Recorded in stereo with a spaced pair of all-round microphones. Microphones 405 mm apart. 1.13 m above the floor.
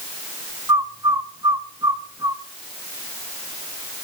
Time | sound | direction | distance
0.7 | a bird | 10° right (ahead or behind) | 0.5 m